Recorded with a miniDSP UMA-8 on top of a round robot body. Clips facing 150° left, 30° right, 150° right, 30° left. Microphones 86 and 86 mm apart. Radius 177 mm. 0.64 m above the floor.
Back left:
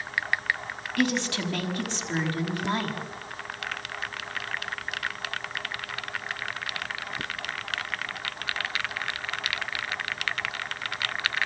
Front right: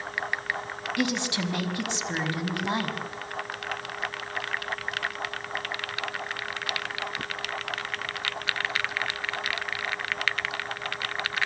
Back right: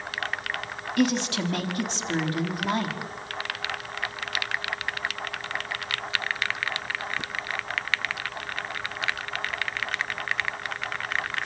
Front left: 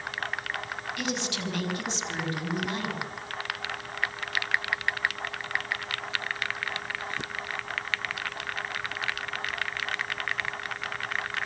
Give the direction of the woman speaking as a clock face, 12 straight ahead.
3 o'clock.